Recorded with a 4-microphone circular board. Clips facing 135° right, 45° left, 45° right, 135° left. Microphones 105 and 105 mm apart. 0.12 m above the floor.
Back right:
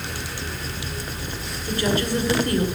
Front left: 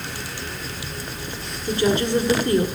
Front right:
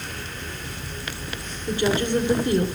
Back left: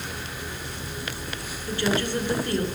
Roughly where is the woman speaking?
Ahead.